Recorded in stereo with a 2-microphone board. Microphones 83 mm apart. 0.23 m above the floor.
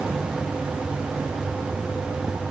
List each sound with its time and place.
Only background noise.